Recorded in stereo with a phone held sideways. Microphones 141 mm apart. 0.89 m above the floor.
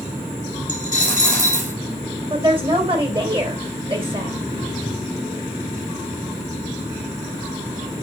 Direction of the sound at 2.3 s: 40° right (ahead or behind).